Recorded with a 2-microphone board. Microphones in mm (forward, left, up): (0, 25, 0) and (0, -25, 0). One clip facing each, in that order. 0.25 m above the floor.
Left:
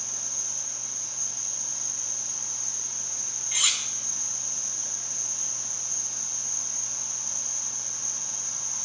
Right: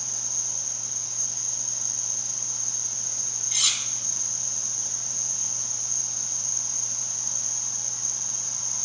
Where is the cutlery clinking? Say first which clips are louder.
Left 1 dB; 20° left (ahead or behind), 1.0 m.